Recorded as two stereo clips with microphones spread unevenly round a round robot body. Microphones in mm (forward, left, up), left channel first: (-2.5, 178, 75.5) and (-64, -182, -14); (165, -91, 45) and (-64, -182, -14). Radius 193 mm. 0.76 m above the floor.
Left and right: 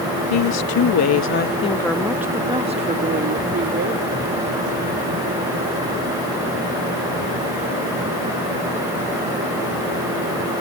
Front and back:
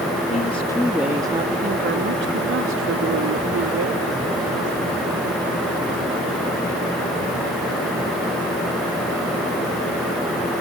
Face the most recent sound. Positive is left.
turn(degrees=-150)